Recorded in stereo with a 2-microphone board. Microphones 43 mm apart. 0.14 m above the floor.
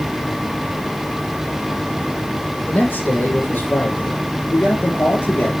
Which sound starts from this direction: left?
A man speaking, at 2.7 s.